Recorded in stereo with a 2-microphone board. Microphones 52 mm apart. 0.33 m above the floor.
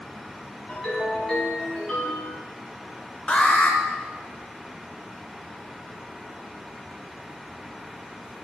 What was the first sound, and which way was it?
A ringtone, 15° left (ahead or behind).